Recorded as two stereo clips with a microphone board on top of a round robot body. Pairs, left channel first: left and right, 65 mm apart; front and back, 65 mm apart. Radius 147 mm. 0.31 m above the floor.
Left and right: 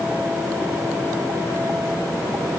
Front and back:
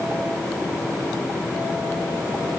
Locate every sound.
Only background noise.